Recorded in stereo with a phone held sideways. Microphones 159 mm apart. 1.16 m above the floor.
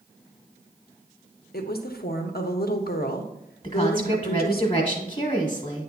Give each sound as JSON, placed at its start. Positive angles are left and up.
{"t": 1.5, "sound": "a woman speaking", "side_deg": 75, "distance_m": 0.9}
{"t": 3.6, "sound": "a woman speaking", "side_deg": 30, "distance_m": 1.1}